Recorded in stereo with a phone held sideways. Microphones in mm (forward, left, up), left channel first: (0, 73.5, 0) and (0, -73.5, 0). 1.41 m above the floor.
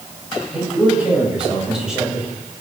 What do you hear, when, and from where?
0.5 s a man speaking: 5° right (ahead or behind), 9 m